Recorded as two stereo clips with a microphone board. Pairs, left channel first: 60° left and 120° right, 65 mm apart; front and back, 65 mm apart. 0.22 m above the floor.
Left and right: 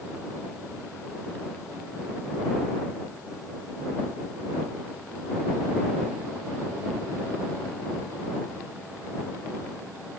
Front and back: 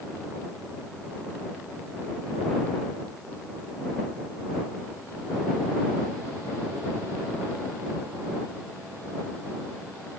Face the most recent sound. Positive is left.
No sound to turn to.